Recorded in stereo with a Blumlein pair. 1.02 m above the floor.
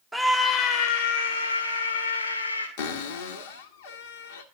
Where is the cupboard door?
55° left, 1.1 m.